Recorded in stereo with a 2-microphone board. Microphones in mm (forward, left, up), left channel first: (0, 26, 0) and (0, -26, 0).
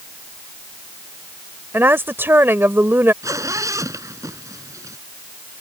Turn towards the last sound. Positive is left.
turn(degrees=-80)